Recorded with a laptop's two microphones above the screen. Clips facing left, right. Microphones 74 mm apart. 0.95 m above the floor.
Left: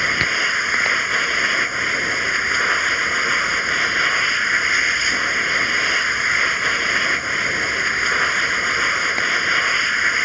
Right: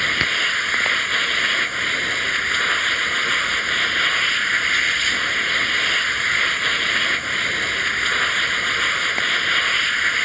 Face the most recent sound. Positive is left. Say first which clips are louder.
# left 2 dB
turn(degrees=10)  # may be behind; listen again after turning